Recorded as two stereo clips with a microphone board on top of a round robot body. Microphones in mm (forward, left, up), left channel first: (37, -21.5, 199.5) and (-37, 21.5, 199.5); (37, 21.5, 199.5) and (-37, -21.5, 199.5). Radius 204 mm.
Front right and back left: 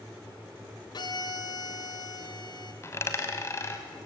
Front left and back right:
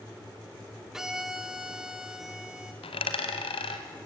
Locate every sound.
0.9 s a violin: 65° right, 1.2 m
2.8 s a dropped coin: 30° left, 0.8 m